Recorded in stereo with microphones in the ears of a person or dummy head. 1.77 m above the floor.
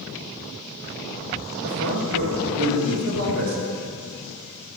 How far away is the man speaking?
About 3 m.